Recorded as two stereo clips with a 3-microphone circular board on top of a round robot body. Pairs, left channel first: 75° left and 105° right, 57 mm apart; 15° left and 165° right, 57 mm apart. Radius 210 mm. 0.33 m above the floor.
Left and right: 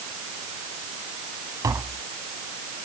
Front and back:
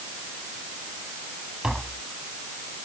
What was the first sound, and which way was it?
Tapping, 85° right.